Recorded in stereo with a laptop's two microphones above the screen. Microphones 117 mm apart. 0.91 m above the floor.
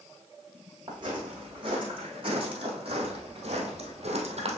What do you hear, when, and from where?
0.9 s footsteps: 40° right (ahead or behind), 3.5 m; by 4.6 s 65° right (ahead or behind), 2.0 m